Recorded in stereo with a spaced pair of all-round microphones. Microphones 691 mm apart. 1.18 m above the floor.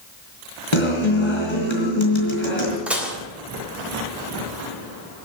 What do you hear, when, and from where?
0.7 s a guitar: 40° left (ahead or behind), 3.5 m
2.9 s dishes clattering: centre (ahead or behind), 3 m